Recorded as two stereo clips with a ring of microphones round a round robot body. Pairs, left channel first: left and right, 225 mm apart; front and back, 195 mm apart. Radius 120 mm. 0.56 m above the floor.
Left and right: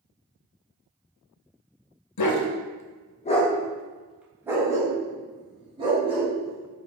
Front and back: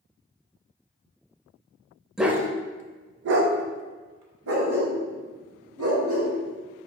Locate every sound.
2.2 s a dog barking: 90° left, 0.6 m; by 6.9 s 155° right, 2 m